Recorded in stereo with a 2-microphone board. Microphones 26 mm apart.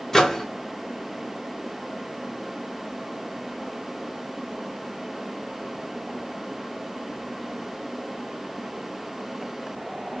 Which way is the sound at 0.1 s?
20° left (ahead or behind).